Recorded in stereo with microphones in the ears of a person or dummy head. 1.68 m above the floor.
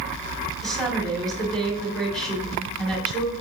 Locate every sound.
0.6 s a woman speaking: centre (ahead or behind), 2.5 m